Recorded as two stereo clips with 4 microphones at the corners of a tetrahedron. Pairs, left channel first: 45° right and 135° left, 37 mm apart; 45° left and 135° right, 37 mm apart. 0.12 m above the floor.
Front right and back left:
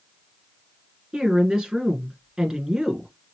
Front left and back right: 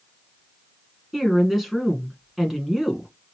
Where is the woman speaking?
155° left, 1.1 m.